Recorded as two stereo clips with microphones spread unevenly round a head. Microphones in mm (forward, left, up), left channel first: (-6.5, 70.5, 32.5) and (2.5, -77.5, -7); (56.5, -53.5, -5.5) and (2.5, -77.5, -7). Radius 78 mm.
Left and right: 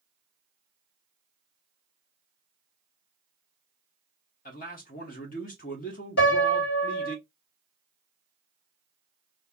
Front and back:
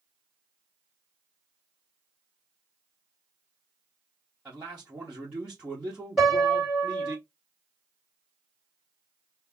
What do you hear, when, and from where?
4.5 s a man speaking: 120° left, 1.2 m
6.2 s a piano: 115° left, 2.5 m